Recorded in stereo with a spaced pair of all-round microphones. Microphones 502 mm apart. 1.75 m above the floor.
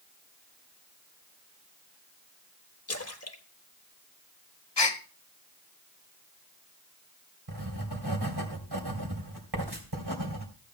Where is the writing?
45° right (ahead or behind), 2.5 m.